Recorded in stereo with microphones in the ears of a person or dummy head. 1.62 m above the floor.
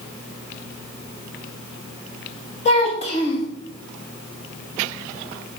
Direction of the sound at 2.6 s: 30° left (ahead or behind).